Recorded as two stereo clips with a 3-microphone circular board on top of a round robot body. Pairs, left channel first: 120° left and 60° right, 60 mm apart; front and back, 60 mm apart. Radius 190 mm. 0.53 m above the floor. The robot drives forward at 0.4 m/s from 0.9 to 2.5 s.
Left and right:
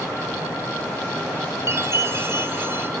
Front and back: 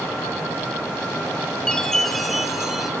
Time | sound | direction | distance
1.7 | a chime | 75° right | 1.2 m